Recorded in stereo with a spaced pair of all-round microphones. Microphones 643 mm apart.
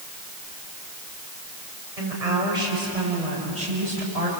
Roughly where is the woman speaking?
Right.